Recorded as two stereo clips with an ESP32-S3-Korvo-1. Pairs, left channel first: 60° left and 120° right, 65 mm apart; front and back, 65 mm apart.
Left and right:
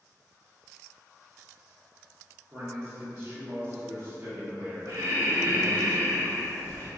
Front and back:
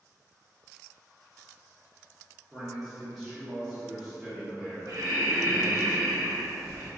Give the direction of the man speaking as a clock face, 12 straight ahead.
3 o'clock.